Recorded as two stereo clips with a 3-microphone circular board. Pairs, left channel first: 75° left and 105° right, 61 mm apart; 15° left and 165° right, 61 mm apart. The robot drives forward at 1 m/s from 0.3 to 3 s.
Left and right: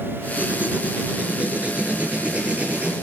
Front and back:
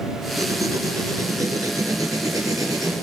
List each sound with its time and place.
0.4 s writing: 165° right, 3 m; by 2.9 s 170° right, 5.5 m